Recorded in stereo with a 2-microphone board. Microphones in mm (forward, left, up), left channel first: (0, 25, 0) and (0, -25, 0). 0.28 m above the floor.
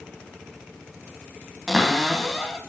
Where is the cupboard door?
5° right (ahead or behind), 2.5 m.